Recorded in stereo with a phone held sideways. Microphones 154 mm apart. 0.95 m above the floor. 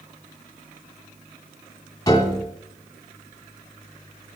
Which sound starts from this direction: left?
A piano, at 2.1 s.